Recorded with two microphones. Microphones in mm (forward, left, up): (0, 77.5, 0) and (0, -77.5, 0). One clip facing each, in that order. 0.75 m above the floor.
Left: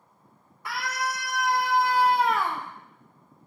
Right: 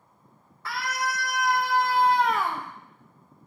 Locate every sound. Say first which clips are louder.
0.7 s a scream: right 1 dB; 20° left (ahead or behind), 2.5 m; by 2.7 s 10° right (ahead or behind), 0.9 m